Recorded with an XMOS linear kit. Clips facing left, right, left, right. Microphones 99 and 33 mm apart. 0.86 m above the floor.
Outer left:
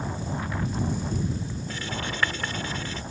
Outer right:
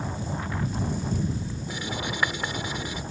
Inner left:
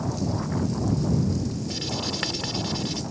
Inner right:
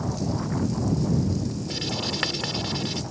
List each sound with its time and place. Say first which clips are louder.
1.7 s writing: outer right 2 dB, inner right 1 dB; 15° right (ahead or behind)